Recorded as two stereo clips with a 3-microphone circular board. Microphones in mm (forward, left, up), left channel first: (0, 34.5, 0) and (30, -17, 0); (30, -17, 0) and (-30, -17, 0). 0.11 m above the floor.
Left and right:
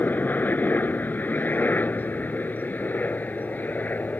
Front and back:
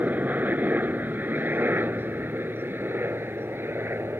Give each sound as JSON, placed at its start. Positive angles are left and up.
{"t": 0.0, "sound": "a helicopter", "azimuth_deg": 150}